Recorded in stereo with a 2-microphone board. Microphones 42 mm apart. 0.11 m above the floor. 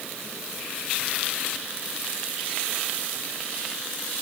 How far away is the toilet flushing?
I don't hear a toilet flushing.